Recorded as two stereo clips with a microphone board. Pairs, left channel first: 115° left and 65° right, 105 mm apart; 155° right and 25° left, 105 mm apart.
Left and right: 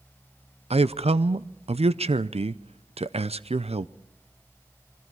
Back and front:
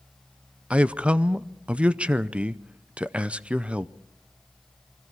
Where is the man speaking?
55° right, 0.6 m.